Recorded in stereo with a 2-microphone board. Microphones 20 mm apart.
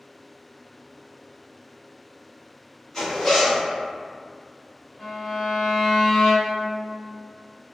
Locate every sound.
2.9 s a zipper: 20° left (ahead or behind), 1.7 m
5.0 s a violin: 20° left (ahead or behind), 1.1 m